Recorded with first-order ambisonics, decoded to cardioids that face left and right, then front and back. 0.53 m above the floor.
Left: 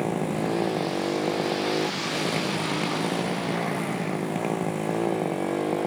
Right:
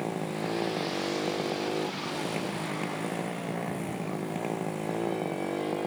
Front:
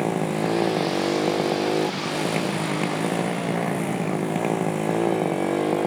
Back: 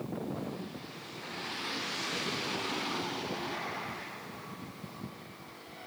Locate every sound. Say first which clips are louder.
0.0 s a motorcycle: left 6 dB, front 15 dB; 15° left